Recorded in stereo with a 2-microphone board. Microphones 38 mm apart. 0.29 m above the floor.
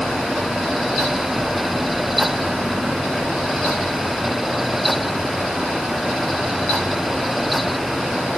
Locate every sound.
Only background noise.